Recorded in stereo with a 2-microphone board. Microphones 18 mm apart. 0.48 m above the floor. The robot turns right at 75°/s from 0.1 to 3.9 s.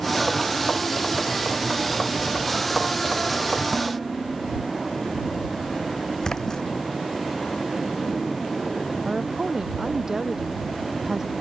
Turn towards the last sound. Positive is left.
turn(degrees=-30)  # may be behind; listen again after turning